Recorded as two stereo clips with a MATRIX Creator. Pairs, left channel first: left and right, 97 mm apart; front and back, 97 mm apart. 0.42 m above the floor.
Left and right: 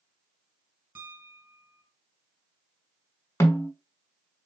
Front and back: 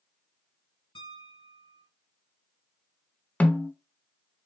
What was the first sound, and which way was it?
A piano, 20° right.